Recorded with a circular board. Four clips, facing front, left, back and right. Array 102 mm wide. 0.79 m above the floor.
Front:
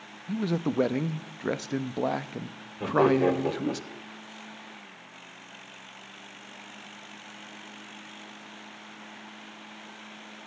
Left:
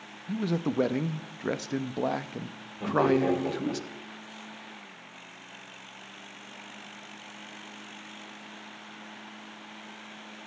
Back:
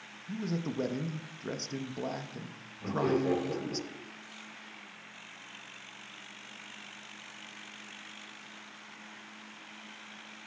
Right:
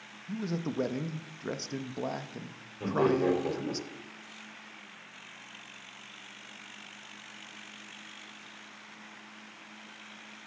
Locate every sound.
0.3 s a man speaking: 35° left, 0.5 m
2.8 s laughter: straight ahead, 3.5 m